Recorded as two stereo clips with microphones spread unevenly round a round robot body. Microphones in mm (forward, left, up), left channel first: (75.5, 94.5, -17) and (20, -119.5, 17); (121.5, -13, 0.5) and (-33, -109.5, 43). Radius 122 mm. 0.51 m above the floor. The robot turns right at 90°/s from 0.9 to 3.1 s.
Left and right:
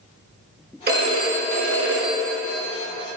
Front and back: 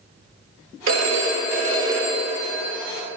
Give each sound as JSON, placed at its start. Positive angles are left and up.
{"t": 0.9, "sound": "a phone ringing", "azimuth_deg": -160, "distance_m": 1.1}